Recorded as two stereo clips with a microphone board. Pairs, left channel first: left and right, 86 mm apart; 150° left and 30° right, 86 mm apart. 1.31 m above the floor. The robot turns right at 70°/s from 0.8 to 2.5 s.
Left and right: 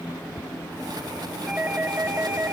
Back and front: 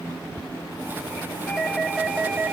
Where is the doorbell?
150° right, 0.9 m; by 2.5 s 75° right, 0.9 m.